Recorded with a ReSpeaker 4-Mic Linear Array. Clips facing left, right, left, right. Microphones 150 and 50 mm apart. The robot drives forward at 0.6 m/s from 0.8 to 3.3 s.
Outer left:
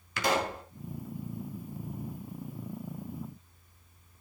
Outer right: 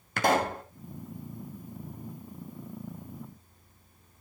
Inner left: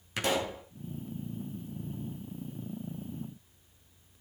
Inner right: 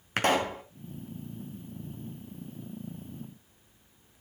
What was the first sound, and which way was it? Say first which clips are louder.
A pop: outer right 4 dB, inner right 5 dB; 50° right (ahead or behind).